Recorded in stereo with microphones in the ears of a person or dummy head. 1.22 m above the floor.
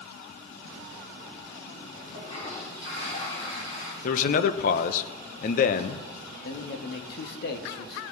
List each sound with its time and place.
2.1 s a toilet flushing: 40° left (ahead or behind), 4.5 m
4.0 s a man speaking: 50° left (ahead or behind), 0.9 m
6.4 s a man speaking: 65° left (ahead or behind), 1.6 m